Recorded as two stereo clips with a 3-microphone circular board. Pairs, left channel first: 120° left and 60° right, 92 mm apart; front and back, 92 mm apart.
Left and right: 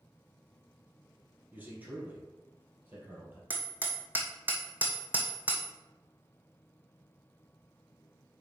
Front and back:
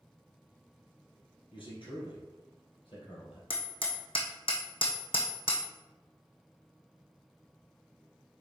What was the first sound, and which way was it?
A man speaking, 10° left.